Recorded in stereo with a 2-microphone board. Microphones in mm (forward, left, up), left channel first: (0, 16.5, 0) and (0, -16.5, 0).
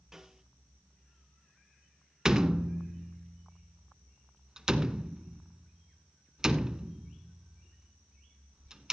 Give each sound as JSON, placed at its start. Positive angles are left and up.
{"t": 0.1, "sound": "a snare drum", "side_deg": -15, "distance_m": 1.1}
{"t": 2.2, "sound": "a door slam", "side_deg": -20, "distance_m": 0.8}